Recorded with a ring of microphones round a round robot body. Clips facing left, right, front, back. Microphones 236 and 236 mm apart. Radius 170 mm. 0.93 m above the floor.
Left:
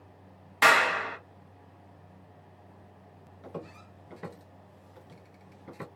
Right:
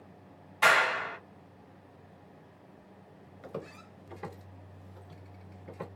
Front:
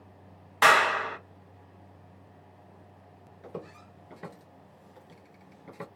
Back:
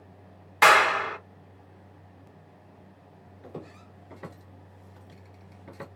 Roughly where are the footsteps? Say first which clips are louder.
Even, even; right.